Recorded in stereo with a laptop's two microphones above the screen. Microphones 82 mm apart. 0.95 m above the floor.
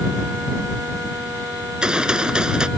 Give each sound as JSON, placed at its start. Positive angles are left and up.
{"t": 1.6, "sound": "a gunshot", "side_deg": -10}